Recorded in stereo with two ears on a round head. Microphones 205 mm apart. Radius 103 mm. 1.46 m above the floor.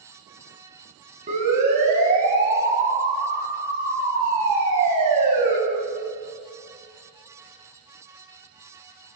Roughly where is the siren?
Right.